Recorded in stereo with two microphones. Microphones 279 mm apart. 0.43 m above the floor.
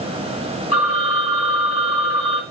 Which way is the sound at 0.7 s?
55° left (ahead or behind).